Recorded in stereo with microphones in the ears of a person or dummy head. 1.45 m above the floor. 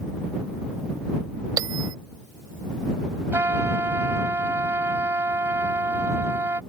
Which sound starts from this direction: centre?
A trumpet, at 3.3 s.